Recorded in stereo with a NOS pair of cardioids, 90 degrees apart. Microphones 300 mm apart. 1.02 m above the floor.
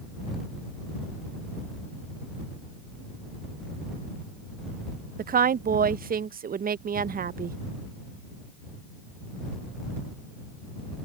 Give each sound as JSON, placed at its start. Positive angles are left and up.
{"t": 5.2, "sound": "a woman speaking", "azimuth_deg": -35}